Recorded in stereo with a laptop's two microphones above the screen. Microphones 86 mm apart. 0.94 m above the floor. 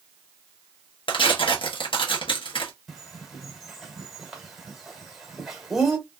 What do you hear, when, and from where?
1.1 s tearing paper: 75° left (ahead or behind), 1.1 m
2.9 s a bird: 5° right (ahead or behind), 1.3 m